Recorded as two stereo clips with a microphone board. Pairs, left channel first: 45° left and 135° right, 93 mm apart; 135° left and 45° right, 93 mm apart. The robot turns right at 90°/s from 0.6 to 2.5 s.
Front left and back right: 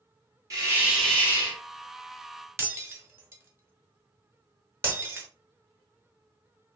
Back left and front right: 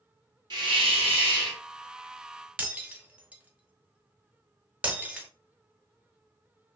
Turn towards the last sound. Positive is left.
turn(degrees=-105)